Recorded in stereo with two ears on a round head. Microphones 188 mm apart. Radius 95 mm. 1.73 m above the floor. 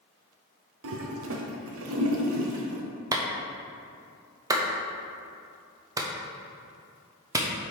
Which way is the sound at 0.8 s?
75° right (ahead or behind).